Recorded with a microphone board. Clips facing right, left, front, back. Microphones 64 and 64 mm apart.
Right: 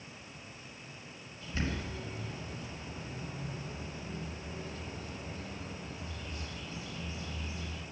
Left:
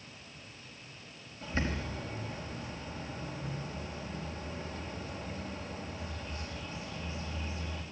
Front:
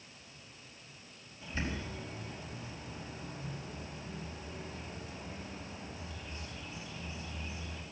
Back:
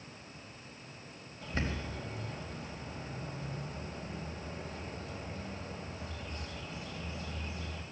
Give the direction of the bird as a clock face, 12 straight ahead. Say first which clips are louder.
Left 2 dB, back 1 dB; 7 o'clock.